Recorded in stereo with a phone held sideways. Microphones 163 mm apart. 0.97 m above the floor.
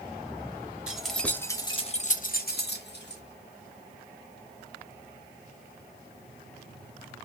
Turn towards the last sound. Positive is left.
turn(degrees=85)